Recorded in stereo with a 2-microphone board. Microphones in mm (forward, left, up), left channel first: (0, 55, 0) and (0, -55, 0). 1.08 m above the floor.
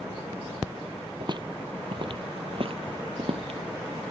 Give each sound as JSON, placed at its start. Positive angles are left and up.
{"t": 1.2, "sound": "footsteps", "side_deg": -45}